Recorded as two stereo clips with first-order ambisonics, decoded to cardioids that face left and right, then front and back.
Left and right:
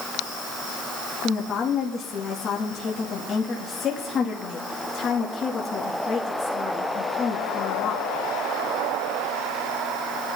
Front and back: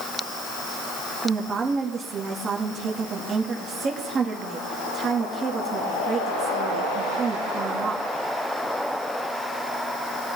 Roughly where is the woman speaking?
Behind left.